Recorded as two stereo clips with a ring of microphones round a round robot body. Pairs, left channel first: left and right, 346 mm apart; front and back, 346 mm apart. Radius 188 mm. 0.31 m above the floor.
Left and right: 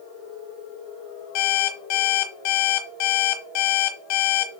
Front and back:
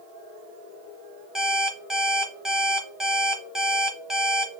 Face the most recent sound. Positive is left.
turn(degrees=90)